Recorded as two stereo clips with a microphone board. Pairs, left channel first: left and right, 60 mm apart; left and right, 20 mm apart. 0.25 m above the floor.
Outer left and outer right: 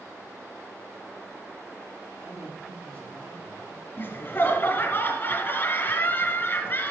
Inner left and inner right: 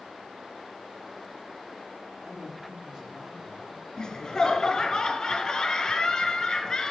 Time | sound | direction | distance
2.2 | a man speaking | 40° right (ahead or behind) | 5.5 m
4.0 | laughter | 35° left (ahead or behind) | 2.5 m